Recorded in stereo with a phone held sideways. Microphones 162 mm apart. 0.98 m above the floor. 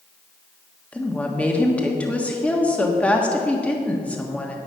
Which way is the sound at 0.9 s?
10° left (ahead or behind).